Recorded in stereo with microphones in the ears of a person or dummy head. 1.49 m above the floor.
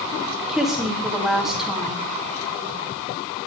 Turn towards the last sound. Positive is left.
turn(degrees=10)  # may be behind; listen again after turning